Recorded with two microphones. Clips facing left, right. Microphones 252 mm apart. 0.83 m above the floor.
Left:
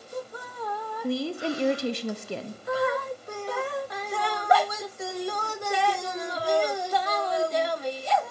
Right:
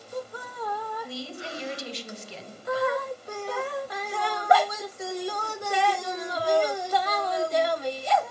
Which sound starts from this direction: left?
A woman speaking, at 1.0 s.